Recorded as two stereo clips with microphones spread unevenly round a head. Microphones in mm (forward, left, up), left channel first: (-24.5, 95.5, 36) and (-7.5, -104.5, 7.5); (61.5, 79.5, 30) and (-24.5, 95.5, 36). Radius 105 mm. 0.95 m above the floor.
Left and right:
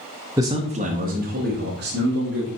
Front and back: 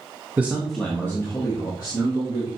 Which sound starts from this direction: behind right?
A man speaking, at 0.4 s.